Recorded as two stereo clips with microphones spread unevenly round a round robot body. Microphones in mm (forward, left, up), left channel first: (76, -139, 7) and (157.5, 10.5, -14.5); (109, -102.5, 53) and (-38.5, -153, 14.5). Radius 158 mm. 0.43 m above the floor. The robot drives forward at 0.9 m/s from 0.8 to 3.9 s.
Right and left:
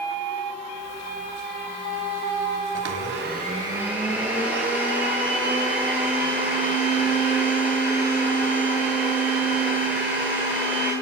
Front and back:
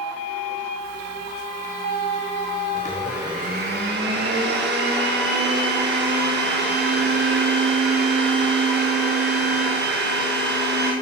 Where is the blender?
65° left, 0.6 m; by 10.9 s 150° left, 1.0 m.